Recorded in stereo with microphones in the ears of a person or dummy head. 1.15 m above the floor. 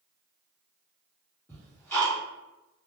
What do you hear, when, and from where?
1.5 s ticking: centre (ahead or behind), 1.4 m